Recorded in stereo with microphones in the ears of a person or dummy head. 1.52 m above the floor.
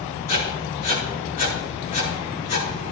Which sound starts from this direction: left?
Writing, at 0.3 s.